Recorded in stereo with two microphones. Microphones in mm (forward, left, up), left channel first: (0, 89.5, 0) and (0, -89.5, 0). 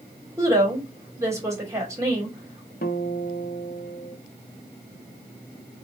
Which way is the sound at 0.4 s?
15° right (ahead or behind).